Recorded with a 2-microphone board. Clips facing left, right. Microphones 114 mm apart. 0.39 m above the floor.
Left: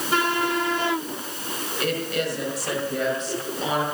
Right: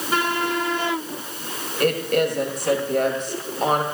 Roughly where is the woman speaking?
Right.